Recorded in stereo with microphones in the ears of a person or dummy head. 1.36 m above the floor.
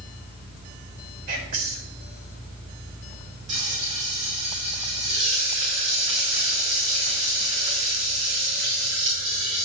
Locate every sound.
1.3 s whispering: 50° right (ahead or behind), 3.5 m
3.5 s frying: 40° right (ahead or behind), 4.5 m